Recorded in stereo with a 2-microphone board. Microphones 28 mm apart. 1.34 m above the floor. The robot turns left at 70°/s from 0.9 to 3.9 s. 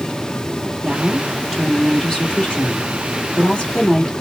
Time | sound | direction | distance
0.8 | a woman speaking | 120° right | 1.6 m